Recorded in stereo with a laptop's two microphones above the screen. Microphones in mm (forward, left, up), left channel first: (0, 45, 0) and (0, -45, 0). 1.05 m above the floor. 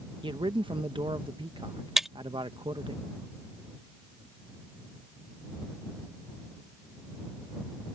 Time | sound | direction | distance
0.2 | a man speaking | 65° right (ahead or behind) | ?
2.0 | breaking glass | 5° right (ahead or behind) | ?